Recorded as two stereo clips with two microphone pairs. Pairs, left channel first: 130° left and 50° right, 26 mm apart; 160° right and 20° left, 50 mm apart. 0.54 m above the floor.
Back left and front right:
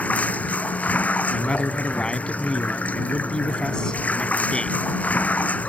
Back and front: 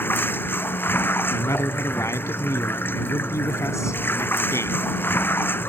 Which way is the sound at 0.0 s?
150° left.